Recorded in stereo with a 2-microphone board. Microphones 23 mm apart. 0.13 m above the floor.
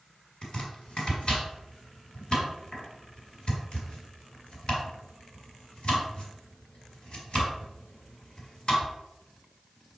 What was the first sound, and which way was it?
Chopping, 45° left (ahead or behind).